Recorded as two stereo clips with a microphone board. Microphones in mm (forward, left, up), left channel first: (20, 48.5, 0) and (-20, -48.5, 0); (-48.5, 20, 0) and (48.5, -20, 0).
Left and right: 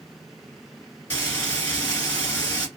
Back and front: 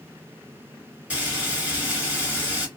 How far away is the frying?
About 1.7 m.